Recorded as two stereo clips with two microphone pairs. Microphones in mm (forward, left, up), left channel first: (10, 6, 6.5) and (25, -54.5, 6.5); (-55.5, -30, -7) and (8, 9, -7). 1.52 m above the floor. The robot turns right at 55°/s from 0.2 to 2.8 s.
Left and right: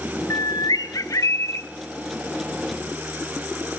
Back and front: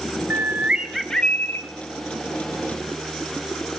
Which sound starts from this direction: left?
A bird, at 0.3 s.